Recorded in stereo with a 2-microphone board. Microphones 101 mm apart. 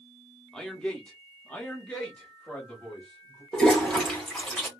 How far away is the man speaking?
About 0.8 m.